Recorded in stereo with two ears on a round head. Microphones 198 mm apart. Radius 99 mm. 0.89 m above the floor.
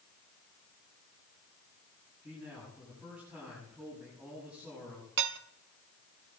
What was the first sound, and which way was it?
A man speaking, 5° right (ahead or behind).